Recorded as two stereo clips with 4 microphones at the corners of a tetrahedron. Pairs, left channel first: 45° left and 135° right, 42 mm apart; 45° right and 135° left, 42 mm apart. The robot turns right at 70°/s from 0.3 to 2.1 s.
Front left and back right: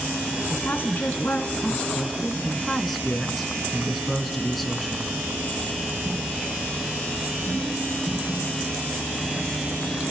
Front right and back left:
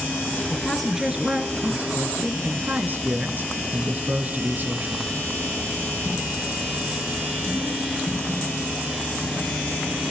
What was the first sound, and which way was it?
A woman speaking, 20° left.